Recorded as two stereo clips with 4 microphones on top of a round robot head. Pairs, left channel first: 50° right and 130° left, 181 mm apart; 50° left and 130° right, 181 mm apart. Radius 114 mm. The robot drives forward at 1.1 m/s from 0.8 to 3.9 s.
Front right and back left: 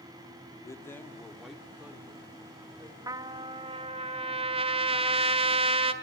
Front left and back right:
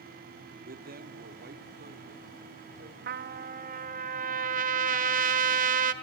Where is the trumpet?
160° right, 0.7 m; by 5.9 s 170° right, 1.5 m.